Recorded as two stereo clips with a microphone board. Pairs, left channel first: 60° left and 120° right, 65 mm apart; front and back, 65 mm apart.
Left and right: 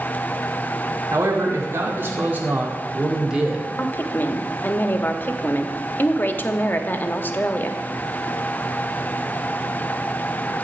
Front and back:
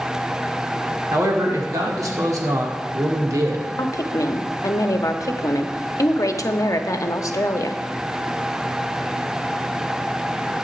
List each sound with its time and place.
1.1 s a man speaking: 145° right, 2 m; by 3.7 s 155° left, 2.5 m
3.8 s a woman speaking: 5° left, 0.9 m